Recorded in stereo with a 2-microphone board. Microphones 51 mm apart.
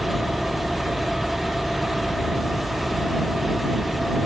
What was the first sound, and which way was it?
An engine running, centre (ahead or behind).